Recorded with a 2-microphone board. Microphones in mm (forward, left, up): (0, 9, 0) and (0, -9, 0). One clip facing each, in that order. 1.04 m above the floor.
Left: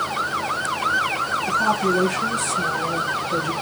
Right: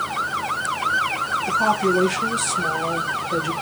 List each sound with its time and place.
1.5 s a woman speaking: 25° right (ahead or behind), 1.1 m